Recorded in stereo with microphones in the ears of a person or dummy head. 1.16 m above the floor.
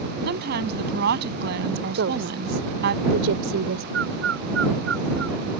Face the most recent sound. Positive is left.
turn(degrees=-75)  # may be behind; listen again after turning